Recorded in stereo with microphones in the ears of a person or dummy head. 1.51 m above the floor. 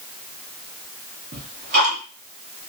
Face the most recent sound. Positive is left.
turn(degrees=-45)  # may be behind; listen again after turning